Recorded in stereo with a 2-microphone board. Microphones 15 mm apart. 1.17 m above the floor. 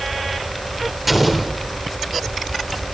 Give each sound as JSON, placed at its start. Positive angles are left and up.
{"t": 1.1, "sound": "an explosion", "side_deg": -10, "distance_m": 3.5}